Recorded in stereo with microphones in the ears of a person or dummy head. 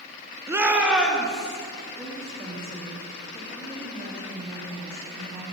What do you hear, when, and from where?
0.5 s a shout: 20° right (ahead or behind), 0.5 m; by 1.6 s centre (ahead or behind), 1.3 m
2.0 s a woman speaking: 5° right (ahead or behind), 2 m